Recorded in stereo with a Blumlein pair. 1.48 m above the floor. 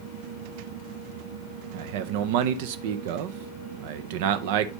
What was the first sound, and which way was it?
A man speaking, 50° right.